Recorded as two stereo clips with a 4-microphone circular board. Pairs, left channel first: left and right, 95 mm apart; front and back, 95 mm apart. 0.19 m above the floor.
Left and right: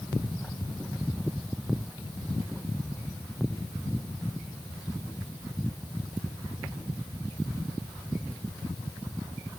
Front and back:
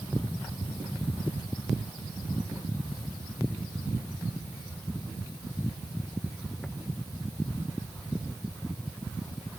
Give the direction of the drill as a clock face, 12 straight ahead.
No drill in this recording.